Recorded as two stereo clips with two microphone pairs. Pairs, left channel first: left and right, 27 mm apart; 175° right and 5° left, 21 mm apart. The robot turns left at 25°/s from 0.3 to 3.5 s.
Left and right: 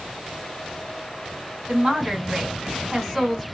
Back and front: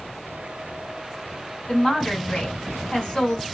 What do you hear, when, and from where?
1.7 s a woman speaking: 135° right, 1.9 m; by 3.5 s straight behind, 1.9 m